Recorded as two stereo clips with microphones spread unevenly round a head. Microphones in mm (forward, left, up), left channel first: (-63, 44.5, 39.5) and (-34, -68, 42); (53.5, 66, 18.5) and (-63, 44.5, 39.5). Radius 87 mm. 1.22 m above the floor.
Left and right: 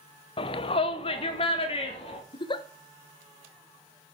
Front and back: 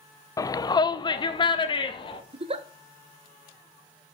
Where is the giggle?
150° left, 1.2 m.